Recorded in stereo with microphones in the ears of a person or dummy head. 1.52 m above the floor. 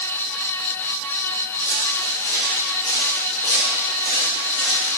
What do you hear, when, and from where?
1.6 s footsteps: 15° left (ahead or behind), 4 m; by 4.9 s 45° left (ahead or behind), 7 m